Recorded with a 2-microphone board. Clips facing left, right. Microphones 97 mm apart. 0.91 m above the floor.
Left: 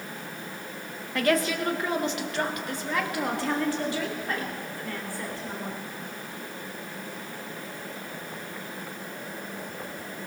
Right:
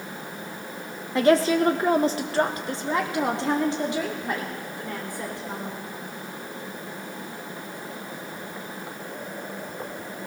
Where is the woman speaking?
20° right (ahead or behind), 0.8 m; by 5.8 s 15° right (ahead or behind), 3.5 m.